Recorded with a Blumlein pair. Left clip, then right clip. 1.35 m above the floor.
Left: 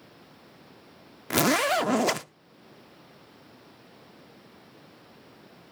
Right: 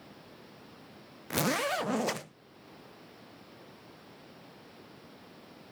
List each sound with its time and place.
1.3 s a zipper: 20° left, 0.5 m